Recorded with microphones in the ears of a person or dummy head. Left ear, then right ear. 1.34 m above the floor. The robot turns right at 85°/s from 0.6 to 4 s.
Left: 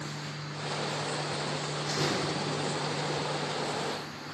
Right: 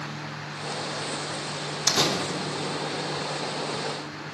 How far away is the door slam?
About 0.8 m.